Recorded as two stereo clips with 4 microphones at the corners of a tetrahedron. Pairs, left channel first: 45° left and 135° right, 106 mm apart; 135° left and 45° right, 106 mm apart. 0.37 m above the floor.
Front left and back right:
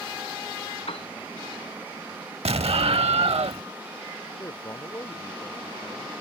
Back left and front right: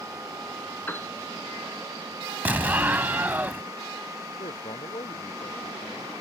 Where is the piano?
65° left.